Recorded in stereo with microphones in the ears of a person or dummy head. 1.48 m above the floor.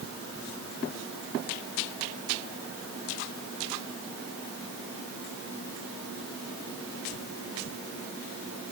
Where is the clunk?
No clunk in this recording.